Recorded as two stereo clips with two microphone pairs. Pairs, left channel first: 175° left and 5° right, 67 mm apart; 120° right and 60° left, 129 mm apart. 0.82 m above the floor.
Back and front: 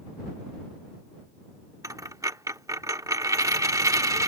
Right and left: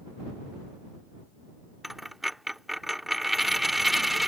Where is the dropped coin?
25° right.